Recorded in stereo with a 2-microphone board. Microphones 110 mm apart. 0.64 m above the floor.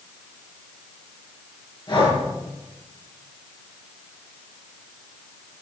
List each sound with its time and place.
1.9 s breathing: 45° left (ahead or behind), 7.5 m